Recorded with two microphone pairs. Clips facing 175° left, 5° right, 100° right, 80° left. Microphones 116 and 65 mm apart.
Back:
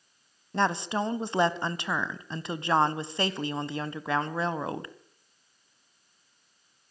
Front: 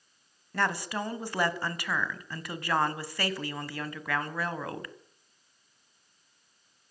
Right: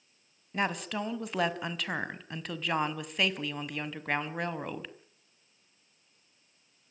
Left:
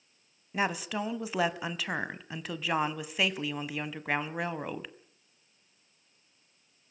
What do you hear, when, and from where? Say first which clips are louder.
0.5 s a woman speaking: back 4 dB, left 1 dB; 165° left, 1.1 m